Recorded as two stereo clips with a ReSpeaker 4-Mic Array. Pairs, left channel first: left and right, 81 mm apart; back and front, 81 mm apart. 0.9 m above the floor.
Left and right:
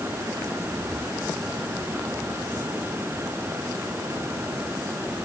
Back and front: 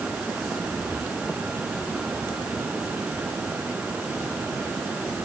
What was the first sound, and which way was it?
Only background noise.